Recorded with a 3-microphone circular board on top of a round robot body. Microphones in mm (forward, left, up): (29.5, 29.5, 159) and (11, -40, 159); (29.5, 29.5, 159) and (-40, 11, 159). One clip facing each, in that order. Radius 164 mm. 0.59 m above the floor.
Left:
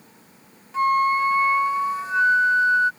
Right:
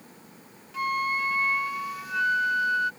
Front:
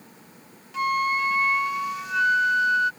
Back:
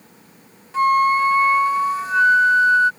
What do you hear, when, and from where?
0.7 s a flute: 135° left